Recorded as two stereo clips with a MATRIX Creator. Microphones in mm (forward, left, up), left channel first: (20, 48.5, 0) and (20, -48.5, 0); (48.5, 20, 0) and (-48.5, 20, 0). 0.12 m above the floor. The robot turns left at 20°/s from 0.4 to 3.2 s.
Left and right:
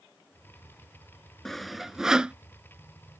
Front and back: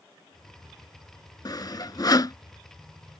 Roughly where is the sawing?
Ahead.